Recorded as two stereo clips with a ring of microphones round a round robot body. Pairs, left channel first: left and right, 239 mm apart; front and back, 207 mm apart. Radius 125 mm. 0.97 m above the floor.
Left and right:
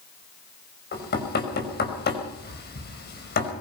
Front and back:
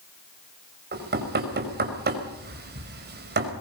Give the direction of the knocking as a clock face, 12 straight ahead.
7 o'clock.